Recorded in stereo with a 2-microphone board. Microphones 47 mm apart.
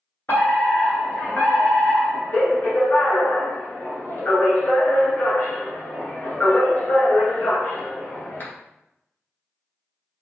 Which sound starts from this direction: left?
A fire alarm, at 0.3 s.